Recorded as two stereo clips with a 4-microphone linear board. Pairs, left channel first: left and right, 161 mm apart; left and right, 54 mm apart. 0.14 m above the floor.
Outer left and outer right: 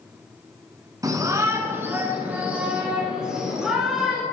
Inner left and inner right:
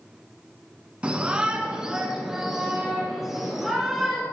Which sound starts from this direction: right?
A shout, at 1.0 s.